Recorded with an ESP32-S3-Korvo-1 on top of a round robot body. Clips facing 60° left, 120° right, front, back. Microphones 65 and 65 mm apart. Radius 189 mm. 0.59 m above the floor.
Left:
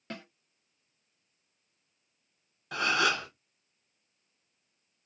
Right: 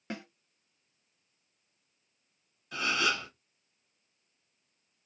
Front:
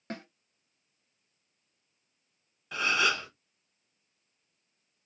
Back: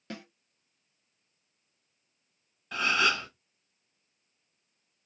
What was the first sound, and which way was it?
A snare drum, 40° right.